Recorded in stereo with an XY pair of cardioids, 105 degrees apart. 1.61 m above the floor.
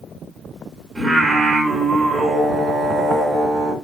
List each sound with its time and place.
0.9 s singing: 30° right, 1.6 m